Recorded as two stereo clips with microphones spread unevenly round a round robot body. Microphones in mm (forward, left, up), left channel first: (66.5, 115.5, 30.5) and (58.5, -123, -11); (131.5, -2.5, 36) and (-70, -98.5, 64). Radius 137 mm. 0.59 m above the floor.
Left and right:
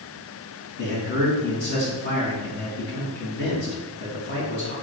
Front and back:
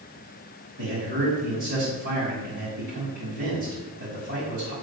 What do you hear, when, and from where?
0.8 s a man speaking: 145° left, 5.5 m